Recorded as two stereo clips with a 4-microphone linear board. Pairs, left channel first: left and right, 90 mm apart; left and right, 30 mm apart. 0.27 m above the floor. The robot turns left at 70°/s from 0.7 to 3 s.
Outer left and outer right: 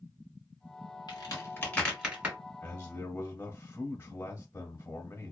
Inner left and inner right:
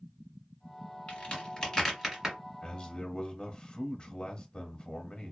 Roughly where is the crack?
Left.